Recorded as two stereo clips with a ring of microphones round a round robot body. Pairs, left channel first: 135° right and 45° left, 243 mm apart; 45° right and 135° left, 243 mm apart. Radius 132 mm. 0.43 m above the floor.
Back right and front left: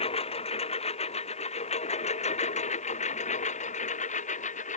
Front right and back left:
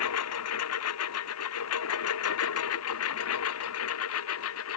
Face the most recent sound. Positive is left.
turn(degrees=-75)